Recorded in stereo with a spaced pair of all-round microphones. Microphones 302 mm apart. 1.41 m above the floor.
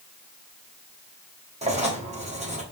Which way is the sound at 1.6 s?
20° right (ahead or behind).